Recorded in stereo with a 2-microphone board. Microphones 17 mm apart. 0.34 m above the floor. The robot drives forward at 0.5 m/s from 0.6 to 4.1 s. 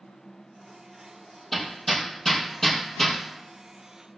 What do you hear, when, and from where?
1.5 s hammering: 15° left (ahead or behind), 4 m; by 3.2 s 20° left (ahead or behind), 3 m